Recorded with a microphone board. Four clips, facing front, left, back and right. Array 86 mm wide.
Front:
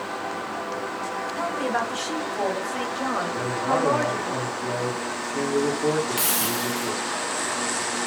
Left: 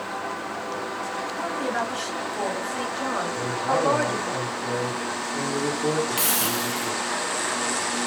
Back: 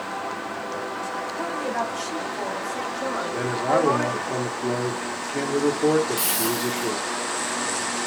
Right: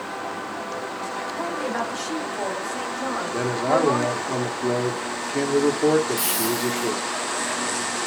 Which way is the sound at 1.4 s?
10° right.